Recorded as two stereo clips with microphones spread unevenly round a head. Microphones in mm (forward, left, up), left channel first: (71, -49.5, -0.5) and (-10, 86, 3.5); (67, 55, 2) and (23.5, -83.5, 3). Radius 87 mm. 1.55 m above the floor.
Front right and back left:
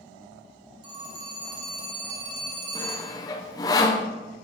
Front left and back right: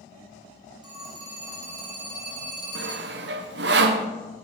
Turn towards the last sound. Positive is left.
turn(degrees=-130)